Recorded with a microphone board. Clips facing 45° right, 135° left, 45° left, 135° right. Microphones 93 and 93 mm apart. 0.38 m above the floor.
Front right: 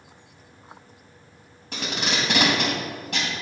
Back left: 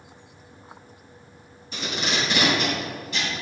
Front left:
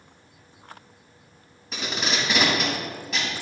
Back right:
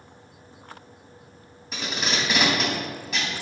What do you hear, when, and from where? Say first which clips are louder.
1.7 s tape being pulled: even, even; 45° right, 3 m